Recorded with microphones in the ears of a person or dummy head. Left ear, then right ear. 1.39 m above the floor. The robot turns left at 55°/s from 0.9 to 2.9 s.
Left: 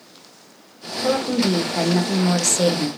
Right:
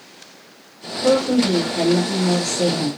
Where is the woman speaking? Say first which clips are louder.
Right 4 dB; 175° left, 0.7 m; by 2.9 s 75° left, 0.7 m.